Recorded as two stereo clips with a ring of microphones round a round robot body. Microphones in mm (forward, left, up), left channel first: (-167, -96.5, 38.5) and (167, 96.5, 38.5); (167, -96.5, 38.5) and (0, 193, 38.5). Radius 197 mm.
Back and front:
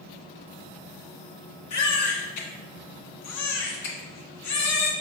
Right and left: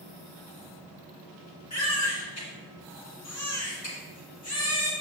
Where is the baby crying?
105° right, 1.8 m.